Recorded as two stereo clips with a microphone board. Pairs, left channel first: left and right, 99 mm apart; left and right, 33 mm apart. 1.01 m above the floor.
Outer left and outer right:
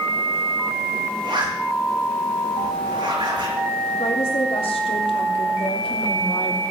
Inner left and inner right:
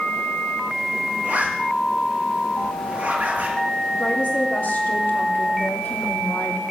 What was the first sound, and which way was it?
A zipper, 55° right (ahead or behind).